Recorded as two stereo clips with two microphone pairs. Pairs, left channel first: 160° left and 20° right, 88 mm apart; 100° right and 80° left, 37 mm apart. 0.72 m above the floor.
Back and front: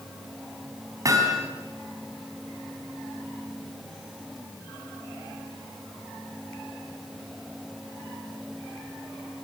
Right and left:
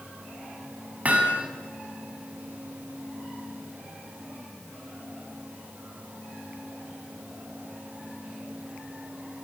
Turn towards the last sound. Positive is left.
turn(degrees=30)